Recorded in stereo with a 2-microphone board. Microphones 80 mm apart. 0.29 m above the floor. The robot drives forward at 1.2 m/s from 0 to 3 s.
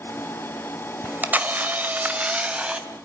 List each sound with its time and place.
1.0 s a camera shutter: 20° right (ahead or behind), 1.3 m; by 2.9 s 15° right (ahead or behind), 2.0 m